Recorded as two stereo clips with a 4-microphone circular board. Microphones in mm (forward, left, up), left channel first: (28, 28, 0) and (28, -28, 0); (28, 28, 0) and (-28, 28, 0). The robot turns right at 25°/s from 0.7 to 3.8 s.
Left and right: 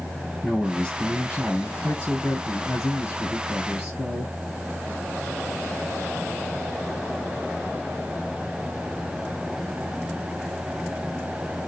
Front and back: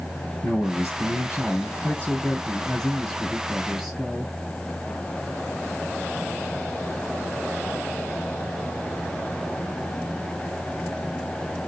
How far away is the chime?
I don't hear a chime.